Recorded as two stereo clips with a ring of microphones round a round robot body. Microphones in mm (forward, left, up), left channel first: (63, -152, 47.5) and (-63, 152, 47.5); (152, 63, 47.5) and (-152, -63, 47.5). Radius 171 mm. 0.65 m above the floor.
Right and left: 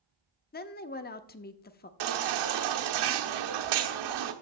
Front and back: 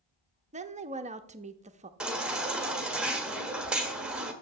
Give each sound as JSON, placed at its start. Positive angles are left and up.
{"t": 0.5, "sound": "a woman speaking", "azimuth_deg": -105, "distance_m": 0.7}
{"t": 2.0, "sound": "a baby crying", "azimuth_deg": 115, "distance_m": 1.1}